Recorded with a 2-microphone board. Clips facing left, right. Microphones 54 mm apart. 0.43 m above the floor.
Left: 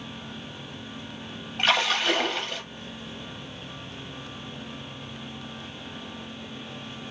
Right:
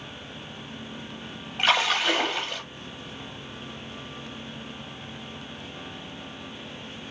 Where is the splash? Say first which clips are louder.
Right 1 dB; 5° right (ahead or behind), 1.1 m.